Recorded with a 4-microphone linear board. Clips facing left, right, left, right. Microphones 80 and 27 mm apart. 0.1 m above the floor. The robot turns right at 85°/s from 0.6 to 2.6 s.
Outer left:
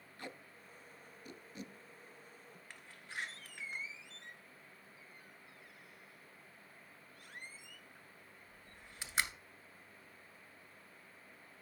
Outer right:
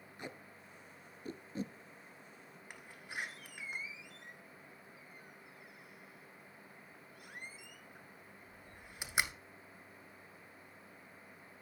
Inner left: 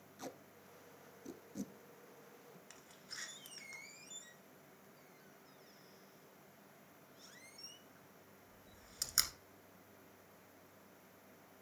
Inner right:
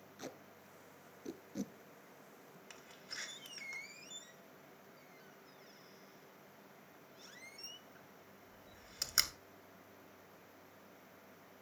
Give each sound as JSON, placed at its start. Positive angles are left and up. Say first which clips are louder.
{"t": 0.2, "sound": "tape being pulled", "louder": "outer right 1 dB, even", "side_deg": -20, "distance_m": 0.6}
{"t": 2.7, "sound": "a door slam", "louder": "outer right 2 dB, inner right 4 dB", "side_deg": -15, "distance_m": 1.1}